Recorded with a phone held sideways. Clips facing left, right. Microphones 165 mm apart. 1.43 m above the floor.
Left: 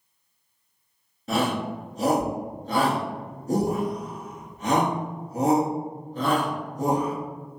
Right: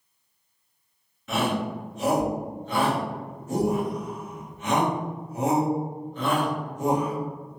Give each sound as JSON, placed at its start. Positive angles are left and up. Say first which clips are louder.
{"t": 1.3, "sound": "a shout", "louder": "left 1 dB", "side_deg": 35, "distance_m": 0.8}